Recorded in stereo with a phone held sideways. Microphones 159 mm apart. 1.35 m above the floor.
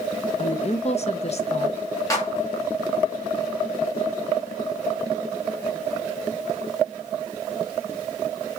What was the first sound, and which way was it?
A woman speaking, 45° left (ahead or behind).